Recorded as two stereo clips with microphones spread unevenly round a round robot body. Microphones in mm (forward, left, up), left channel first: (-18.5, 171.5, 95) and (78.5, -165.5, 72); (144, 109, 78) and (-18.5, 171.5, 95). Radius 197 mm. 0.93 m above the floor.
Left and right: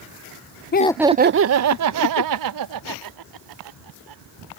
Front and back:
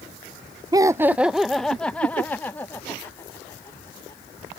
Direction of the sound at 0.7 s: 105° left.